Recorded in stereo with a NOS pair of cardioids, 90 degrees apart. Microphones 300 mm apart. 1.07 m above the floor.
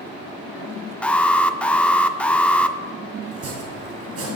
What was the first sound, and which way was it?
An alarm, 5° left.